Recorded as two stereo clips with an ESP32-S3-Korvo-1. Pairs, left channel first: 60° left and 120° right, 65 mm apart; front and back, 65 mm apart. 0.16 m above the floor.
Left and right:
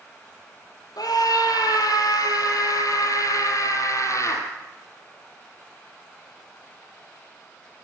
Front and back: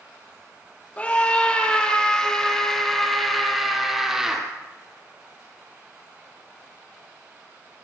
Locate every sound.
1.0 s a scream: 70° left, 4.5 m; by 4.4 s 100° left, 4 m